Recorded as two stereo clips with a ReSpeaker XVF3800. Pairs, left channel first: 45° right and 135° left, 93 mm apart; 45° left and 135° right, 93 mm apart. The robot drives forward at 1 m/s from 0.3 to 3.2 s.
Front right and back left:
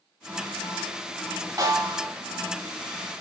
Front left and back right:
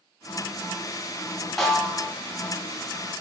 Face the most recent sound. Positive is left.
turn(degrees=165)